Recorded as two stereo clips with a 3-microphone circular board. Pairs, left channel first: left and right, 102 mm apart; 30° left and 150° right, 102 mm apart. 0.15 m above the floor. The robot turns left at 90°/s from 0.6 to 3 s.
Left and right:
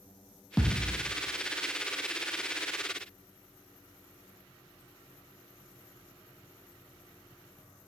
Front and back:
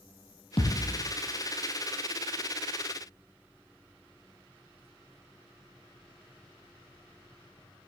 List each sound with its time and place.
0.6 s a thud: 5° left, 2.5 m; by 0.9 s 25° right, 2.5 m